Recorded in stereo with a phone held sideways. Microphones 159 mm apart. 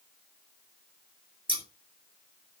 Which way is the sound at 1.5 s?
30° right (ahead or behind).